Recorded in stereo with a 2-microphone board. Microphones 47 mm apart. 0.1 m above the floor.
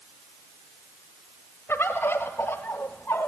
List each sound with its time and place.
1.7 s a bird: 50° left (ahead or behind), 1.0 m